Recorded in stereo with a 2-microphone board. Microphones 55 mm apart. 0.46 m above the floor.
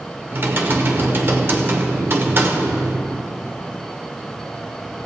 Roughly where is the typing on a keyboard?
Right.